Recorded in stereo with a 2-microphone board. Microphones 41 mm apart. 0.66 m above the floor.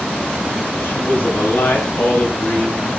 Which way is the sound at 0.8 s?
70° left (ahead or behind).